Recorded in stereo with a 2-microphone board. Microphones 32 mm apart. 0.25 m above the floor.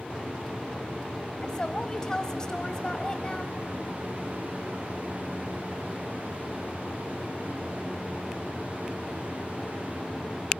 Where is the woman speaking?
25° left (ahead or behind), 0.9 m.